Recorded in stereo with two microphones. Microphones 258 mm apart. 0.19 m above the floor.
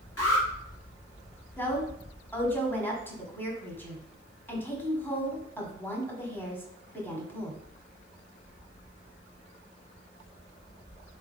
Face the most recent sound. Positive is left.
turn(degrees=10)  # may be behind; listen again after turning